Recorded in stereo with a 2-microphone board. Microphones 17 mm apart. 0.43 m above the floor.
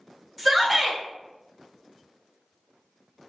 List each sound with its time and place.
0.4 s a shout: 5° right (ahead or behind), 1.0 m